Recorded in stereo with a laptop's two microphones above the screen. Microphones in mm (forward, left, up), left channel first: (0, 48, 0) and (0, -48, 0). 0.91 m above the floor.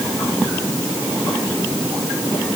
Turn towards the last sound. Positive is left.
No sound to turn to.